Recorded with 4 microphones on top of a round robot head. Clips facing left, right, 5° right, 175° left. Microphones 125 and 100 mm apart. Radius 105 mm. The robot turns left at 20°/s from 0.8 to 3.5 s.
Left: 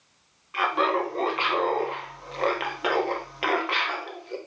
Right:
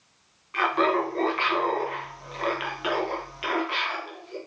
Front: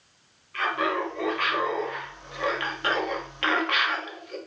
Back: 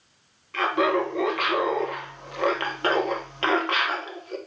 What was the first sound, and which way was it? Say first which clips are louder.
Laughter: right 1 dB, back 4 dB; 175° left.